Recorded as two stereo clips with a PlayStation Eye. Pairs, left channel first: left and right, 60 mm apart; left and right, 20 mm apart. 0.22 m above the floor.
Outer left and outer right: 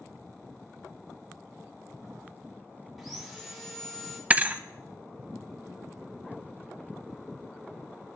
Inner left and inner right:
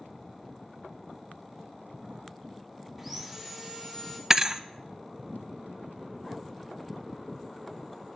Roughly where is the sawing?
Centre.